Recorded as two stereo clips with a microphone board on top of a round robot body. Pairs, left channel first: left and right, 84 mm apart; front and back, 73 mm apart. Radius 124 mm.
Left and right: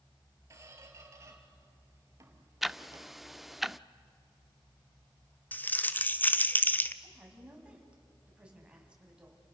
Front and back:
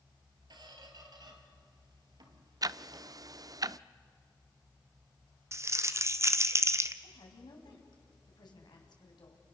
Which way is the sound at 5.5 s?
150° left.